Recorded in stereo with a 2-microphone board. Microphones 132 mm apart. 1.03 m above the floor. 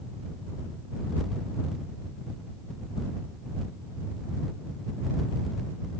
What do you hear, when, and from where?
Only background noise.